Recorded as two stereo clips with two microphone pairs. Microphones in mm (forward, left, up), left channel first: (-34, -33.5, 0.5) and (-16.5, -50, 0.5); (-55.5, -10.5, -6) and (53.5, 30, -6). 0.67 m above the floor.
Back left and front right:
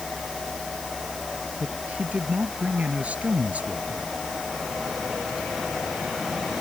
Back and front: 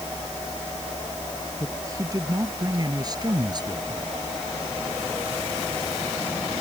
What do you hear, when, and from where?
1.6 s a woman speaking: 40° right; by 4.1 s 30° right